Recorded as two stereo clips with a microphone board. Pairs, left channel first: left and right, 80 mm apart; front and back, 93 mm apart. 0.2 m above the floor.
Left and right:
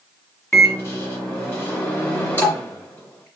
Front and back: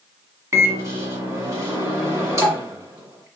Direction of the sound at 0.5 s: 140° left.